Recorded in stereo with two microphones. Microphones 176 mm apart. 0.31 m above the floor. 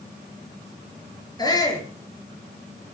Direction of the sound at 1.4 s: 25° left (ahead or behind).